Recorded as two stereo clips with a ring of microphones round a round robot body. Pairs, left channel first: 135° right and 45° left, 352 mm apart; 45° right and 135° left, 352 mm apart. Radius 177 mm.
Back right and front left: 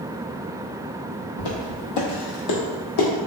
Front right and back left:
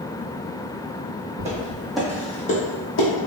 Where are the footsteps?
155° right, 0.9 m; by 3.1 s 95° right, 0.9 m.